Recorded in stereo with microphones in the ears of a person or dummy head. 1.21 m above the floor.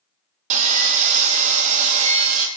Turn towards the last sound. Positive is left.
turn(degrees=-40)  # may be behind; listen again after turning